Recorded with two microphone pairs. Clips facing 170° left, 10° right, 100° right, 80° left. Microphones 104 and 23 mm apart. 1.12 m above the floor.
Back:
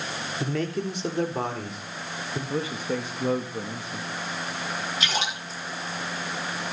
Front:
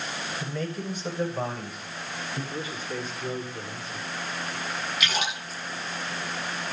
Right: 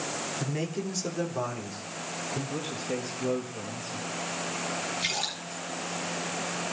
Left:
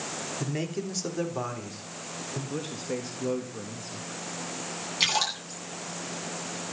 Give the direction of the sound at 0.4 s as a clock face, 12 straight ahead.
7 o'clock.